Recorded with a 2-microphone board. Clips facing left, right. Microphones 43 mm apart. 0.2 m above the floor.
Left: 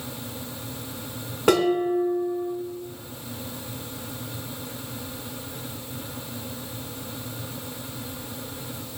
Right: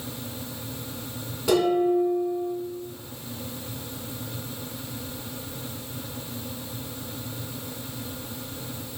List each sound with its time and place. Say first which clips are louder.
1.5 s dishes clattering: even; 50° left (ahead or behind), 1.2 m